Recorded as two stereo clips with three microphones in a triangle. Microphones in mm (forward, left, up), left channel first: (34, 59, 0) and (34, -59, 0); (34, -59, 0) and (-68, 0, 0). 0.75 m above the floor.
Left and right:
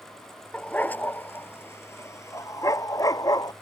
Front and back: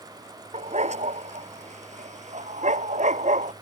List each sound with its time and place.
0.5 s a dog barking: 170° left; by 3.5 s 150° left